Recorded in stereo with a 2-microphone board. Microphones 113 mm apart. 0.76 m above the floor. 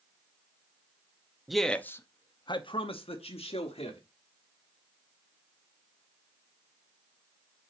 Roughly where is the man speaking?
Centre.